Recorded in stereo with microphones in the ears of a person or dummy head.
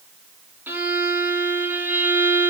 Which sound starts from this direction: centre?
A violin, at 0.7 s.